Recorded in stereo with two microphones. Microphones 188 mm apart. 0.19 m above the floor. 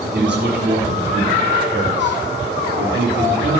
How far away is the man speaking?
About 3.5 m.